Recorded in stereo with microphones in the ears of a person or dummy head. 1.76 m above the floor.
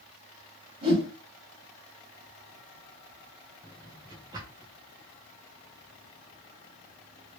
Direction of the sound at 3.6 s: 15° right (ahead or behind).